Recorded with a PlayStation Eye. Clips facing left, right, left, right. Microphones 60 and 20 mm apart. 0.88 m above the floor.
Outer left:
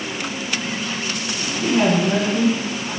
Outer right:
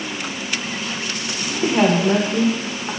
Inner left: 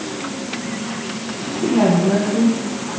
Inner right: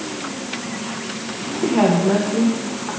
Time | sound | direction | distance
1.5 | a woman speaking | 35° right (ahead or behind) | 2.5 m